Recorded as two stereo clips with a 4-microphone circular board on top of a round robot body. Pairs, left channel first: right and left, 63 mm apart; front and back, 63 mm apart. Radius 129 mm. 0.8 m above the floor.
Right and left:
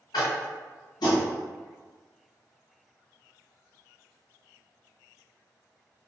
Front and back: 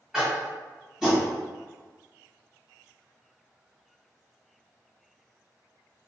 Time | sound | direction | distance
0.1 | tapping | 100° right | 1.1 m